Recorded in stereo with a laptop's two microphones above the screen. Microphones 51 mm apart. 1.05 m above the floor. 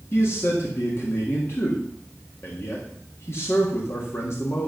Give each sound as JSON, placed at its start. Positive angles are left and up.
{"t": 0.1, "sound": "a man speaking", "side_deg": 55, "distance_m": 1.7}